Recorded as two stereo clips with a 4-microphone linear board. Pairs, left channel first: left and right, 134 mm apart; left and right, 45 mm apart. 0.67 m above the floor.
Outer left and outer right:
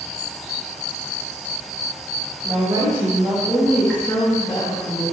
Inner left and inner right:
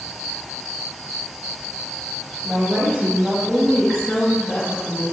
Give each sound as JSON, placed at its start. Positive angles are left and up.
{"t": 2.4, "sound": "a woman speaking", "side_deg": -45, "distance_m": 1.1}